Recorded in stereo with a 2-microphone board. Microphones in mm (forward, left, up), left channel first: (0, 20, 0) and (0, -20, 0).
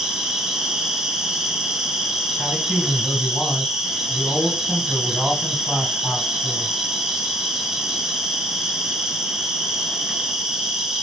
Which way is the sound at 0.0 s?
15° right (ahead or behind).